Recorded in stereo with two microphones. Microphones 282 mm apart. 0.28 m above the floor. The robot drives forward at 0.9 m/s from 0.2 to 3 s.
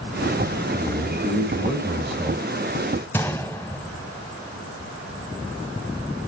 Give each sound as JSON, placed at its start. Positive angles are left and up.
{"t": 0.7, "sound": "a man speaking", "side_deg": 0, "distance_m": 1.4}
{"t": 3.1, "sound": "a gunshot", "side_deg": 5, "distance_m": 0.8}